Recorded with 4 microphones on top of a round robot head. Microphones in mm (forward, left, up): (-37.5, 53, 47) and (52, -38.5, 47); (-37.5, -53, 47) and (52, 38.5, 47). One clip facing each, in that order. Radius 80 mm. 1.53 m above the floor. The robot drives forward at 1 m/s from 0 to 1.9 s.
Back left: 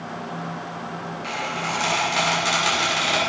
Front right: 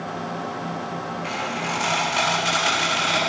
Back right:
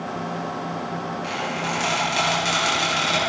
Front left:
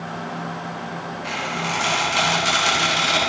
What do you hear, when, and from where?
1.2 s a squeak: 165° right, 6.5 m; by 3.2 s 170° right, 7 m